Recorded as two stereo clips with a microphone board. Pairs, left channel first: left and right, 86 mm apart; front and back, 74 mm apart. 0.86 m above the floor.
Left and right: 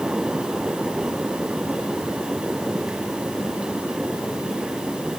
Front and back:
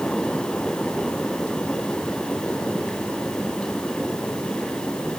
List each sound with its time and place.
Only background noise.